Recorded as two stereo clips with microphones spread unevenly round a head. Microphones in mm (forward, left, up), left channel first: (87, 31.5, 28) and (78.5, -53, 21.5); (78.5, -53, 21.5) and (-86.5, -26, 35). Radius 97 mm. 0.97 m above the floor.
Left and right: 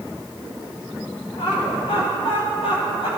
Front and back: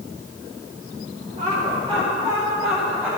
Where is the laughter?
110° left, 3 m; by 3.1 s 90° left, 3.5 m.